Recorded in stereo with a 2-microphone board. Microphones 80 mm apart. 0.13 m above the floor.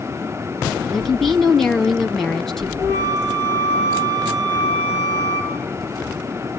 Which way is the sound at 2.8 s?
35° right (ahead or behind).